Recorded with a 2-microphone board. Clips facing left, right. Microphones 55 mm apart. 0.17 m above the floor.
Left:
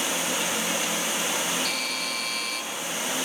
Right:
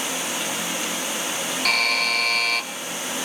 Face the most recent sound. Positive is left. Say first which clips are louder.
# right 8 dB
turn(degrees=-60)  # may be behind; listen again after turning